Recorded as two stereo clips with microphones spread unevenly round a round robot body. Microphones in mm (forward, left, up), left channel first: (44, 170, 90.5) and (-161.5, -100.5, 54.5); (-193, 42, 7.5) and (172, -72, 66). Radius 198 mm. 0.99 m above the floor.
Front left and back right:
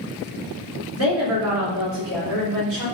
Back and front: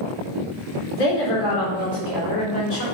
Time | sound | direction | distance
0.9 | a woman speaking | 175° right | 4 m